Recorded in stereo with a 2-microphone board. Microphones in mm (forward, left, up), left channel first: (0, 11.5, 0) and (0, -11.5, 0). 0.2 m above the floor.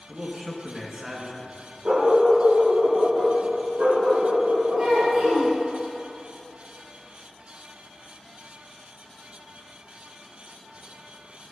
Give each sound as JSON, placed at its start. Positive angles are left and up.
{"t": 0.1, "sound": "a man speaking", "side_deg": -25, "distance_m": 2.5}
{"t": 1.9, "sound": "a dog barking", "side_deg": -80, "distance_m": 3.0}
{"t": 4.8, "sound": "a child speaking", "side_deg": -35, "distance_m": 2.5}